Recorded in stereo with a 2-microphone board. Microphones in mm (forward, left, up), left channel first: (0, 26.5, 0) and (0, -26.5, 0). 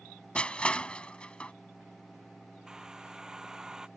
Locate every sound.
0.3 s crushing: 20° left (ahead or behind)
2.7 s a hair dryer: 10° right (ahead or behind)